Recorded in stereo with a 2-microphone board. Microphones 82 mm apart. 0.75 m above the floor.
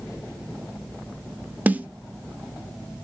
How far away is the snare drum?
About 0.8 m.